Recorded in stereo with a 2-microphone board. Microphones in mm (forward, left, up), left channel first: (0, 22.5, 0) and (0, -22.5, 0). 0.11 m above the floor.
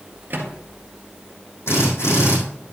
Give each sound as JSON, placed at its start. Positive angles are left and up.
{"t": 0.3, "sound": "a microwave", "side_deg": -45, "distance_m": 1.9}
{"t": 1.7, "sound": "a drill", "side_deg": 70, "distance_m": 5.5}